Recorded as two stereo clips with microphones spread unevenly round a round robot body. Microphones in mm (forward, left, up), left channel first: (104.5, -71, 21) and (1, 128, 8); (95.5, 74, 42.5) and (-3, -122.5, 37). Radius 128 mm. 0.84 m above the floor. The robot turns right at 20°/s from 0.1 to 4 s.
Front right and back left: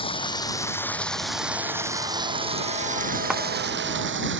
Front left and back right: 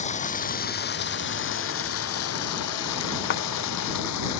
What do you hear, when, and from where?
0.0 s running water: 5° left; by 4.4 s 80° left
3.3 s a clap: 35° left